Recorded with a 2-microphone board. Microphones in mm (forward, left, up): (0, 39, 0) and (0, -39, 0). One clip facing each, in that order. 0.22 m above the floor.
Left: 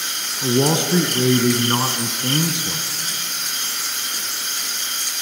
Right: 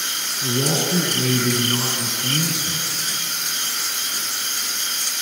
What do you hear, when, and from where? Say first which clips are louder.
0.4 s a man speaking: left 5 dB; 55° left (ahead or behind), 1.6 m